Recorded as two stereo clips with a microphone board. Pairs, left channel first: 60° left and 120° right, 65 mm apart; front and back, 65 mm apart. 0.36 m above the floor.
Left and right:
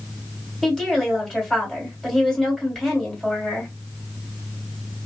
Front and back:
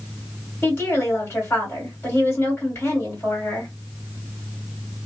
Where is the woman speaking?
35° right, 1.7 m.